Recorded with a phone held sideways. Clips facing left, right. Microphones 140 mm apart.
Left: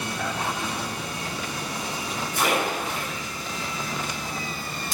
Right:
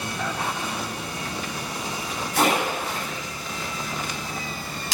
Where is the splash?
80° right, 9.5 m.